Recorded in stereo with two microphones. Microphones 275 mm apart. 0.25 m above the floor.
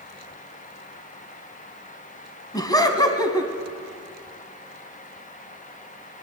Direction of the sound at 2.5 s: 15° left (ahead or behind).